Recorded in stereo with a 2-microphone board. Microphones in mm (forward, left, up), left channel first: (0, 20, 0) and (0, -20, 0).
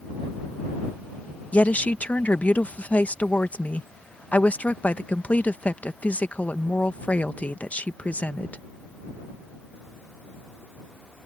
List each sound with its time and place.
1.5 s a woman speaking: 40° left (ahead or behind)